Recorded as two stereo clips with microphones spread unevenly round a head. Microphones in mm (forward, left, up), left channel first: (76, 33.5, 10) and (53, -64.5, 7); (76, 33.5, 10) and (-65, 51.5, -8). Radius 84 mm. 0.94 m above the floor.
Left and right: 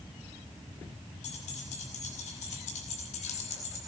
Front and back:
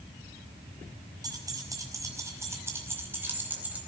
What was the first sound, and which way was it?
Keys jangling, 110° left.